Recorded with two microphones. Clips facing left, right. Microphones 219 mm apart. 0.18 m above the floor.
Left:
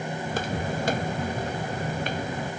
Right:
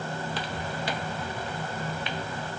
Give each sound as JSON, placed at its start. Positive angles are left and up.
{"t": 0.2, "sound": "footsteps", "side_deg": 50}